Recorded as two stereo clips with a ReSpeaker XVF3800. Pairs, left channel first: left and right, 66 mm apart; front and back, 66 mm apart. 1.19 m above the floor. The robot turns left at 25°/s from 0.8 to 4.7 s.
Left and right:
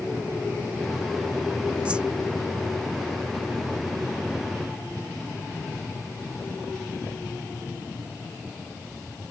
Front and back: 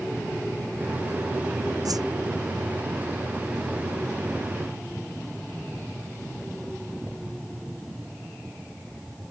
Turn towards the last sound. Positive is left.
turn(degrees=125)